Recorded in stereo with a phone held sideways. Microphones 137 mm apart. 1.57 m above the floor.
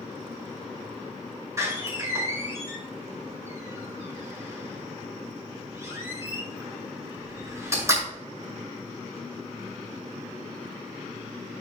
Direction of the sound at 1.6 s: 25° right (ahead or behind).